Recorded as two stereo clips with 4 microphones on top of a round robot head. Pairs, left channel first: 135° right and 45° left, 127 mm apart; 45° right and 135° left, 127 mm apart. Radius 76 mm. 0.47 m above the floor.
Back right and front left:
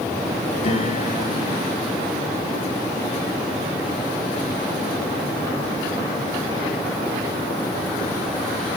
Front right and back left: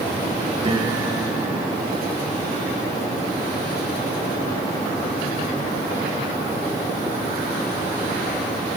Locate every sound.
0.6 s a piano: 175° right, 10 m